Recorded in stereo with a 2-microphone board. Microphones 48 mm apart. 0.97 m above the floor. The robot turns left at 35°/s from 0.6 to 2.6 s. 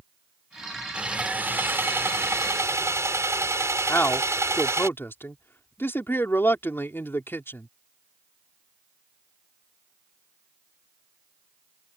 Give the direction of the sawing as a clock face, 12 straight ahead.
1 o'clock.